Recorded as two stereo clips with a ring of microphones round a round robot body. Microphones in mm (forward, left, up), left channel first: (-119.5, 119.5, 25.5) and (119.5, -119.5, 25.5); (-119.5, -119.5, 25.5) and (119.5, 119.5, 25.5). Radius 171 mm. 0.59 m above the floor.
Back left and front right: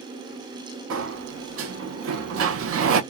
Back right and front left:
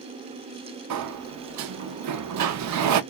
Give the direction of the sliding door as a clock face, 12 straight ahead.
12 o'clock.